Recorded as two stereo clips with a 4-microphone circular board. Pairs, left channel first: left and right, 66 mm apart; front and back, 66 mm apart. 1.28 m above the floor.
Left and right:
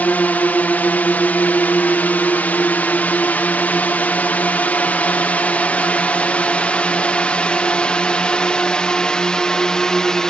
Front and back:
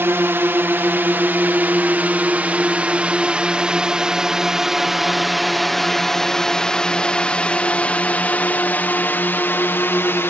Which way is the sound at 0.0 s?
145° left.